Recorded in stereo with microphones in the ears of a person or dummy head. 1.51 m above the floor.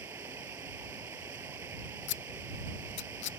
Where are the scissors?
60° left (ahead or behind).